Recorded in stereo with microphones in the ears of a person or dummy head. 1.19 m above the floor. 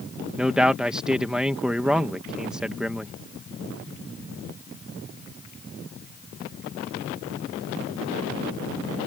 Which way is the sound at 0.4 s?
5° right (ahead or behind).